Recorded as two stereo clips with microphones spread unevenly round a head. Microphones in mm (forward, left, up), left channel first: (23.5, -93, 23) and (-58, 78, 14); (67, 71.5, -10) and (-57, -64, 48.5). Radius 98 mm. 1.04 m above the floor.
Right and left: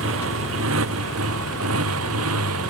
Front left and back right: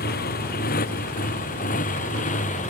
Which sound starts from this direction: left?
A motorcycle, at 0.0 s.